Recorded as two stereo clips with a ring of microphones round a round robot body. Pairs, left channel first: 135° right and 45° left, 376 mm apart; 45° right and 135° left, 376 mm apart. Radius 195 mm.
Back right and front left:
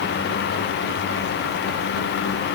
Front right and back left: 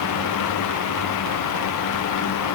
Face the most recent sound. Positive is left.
No sound to turn to.